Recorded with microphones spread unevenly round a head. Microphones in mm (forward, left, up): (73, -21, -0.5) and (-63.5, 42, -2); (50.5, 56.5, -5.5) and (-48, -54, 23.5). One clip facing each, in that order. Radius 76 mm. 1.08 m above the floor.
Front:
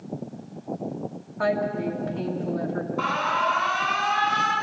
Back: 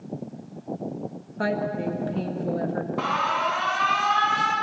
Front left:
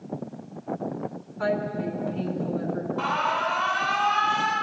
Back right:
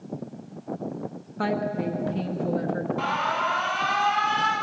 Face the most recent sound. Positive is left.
turn(degrees=160)